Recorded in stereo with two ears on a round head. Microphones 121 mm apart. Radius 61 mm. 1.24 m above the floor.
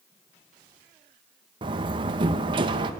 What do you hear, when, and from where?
1.6 s a door slam: 35° right (ahead or behind), 0.8 m